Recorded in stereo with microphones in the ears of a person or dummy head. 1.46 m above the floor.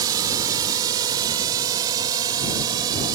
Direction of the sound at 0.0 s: 15° right (ahead or behind).